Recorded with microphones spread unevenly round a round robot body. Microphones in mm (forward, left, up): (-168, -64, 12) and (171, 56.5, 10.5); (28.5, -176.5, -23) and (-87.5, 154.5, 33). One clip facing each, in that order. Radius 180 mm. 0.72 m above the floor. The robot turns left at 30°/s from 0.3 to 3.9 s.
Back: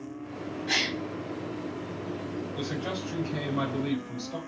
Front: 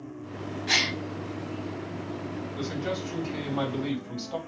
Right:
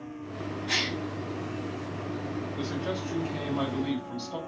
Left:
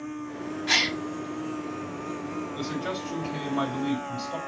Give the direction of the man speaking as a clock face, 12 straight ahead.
9 o'clock.